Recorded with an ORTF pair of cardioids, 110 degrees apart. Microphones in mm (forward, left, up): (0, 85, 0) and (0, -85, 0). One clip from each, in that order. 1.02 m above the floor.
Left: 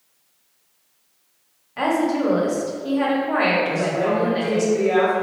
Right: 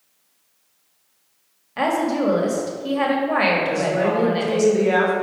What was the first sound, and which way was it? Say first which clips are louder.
A woman speaking: even; 25° right.